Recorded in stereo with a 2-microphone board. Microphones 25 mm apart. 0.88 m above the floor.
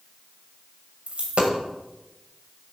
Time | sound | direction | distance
1.1 | a dropped coin | 55° right (ahead or behind) | 1.6 m